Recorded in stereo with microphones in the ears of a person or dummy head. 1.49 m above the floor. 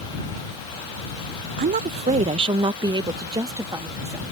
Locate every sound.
1.6 s a woman speaking: 40° right (ahead or behind); by 4.2 s 15° right (ahead or behind)